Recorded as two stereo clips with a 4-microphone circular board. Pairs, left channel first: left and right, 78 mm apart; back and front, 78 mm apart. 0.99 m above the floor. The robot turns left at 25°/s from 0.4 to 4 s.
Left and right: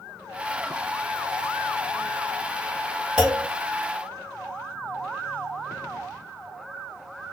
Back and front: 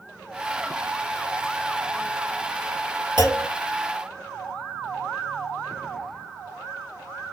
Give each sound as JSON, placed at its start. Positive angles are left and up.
{"t": 3.2, "sound": "a clunk", "azimuth_deg": -10, "distance_m": 2.5}